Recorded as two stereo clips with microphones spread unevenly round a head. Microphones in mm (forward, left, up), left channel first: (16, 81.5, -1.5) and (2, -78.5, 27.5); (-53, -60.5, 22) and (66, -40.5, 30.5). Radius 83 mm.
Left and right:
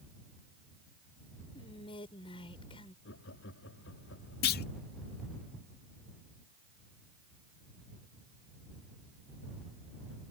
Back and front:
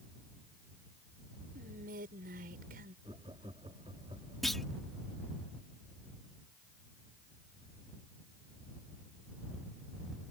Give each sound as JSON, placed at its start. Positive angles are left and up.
{"t": 1.6, "sound": "whispering", "azimuth_deg": 25}
{"t": 3.0, "sound": "laughter", "azimuth_deg": 75}
{"t": 4.4, "sound": "a clunk", "azimuth_deg": 95}